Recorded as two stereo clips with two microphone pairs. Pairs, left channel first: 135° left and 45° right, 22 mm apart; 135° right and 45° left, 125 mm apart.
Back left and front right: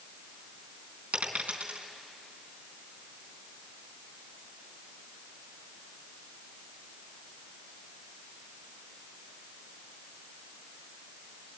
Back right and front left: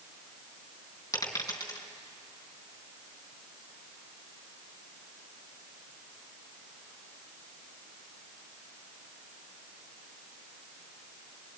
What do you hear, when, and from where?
1.1 s a dropped coin: 70° right, 4 m